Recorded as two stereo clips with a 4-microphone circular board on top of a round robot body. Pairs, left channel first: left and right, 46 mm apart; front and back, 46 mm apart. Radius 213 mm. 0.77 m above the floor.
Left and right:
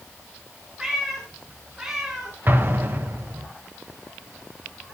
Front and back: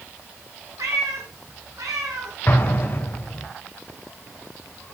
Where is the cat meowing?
170° right, 0.8 m.